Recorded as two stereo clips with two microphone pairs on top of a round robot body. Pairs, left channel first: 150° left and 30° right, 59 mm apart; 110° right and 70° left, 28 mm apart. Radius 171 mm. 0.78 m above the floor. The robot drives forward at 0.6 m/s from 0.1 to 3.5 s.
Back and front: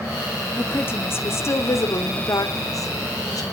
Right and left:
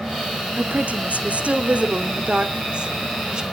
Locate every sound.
0.6 s a woman speaking: 90° left, 2.5 m; by 3.4 s 125° left, 3 m